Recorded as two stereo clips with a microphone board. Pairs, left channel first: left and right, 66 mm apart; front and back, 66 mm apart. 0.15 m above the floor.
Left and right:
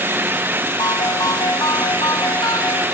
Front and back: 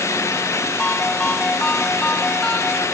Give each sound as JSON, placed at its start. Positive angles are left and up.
{"t": 0.8, "sound": "a ringtone", "azimuth_deg": 70}